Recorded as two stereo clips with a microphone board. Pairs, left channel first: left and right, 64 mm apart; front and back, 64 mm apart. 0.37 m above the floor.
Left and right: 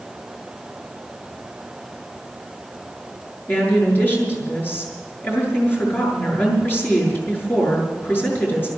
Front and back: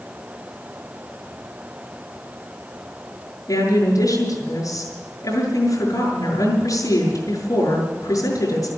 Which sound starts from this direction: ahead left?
A woman speaking, at 3.5 s.